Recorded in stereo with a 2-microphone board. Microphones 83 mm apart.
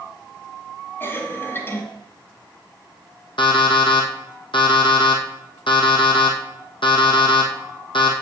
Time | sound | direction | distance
1.0 | a cough | 25° left (ahead or behind) | 1.6 m
3.4 | an alarm clock | 80° left | 2.5 m